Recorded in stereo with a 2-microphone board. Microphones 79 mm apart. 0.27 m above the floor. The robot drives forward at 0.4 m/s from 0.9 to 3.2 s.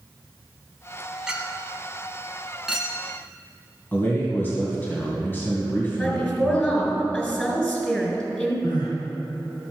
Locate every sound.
1.3 s a clink: 10° right (ahead or behind), 1.1 m; by 3.0 s 5° right (ahead or behind), 1.8 m
3.9 s a man speaking: 25° left (ahead or behind), 2.5 m
5.9 s a woman speaking: 15° left (ahead or behind), 3 m
8.6 s crying: 70° left (ahead or behind), 3.5 m